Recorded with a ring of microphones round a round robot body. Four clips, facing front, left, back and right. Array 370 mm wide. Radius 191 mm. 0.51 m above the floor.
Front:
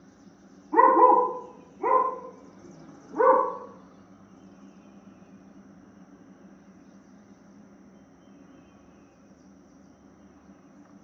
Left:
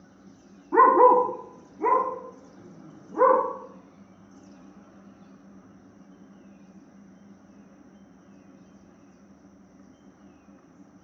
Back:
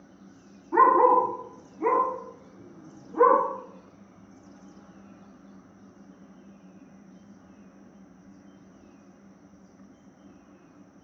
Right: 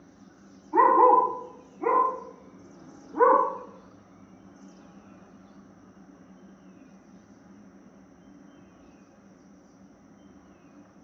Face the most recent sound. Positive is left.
turn(degrees=120)